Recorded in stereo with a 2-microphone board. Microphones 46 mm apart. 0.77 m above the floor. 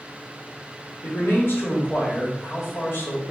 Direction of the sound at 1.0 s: 55° left (ahead or behind).